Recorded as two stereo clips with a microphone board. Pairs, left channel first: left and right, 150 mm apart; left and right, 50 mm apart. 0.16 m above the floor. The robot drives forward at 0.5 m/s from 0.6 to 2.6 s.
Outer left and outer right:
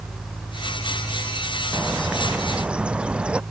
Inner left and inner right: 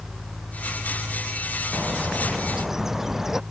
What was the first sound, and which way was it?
A bird, 5° right (ahead or behind).